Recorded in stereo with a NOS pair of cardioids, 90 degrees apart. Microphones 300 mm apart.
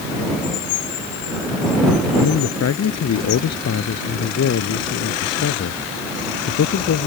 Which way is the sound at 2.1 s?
60° left.